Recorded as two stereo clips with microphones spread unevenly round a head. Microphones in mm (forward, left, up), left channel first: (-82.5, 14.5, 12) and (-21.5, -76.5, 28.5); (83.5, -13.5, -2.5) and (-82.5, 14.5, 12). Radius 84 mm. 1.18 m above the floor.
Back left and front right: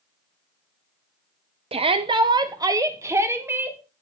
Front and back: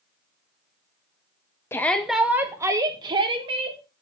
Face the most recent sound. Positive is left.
turn(degrees=-130)